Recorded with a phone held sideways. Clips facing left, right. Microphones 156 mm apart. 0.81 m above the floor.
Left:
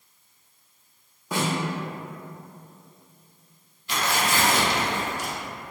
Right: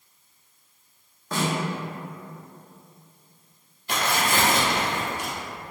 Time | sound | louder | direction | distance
1.3 | a snare drum | even | 10° left (ahead or behind) | 1.2 m
3.9 | tearing paper | right 1 dB | 55° right (ahead or behind) | 0.8 m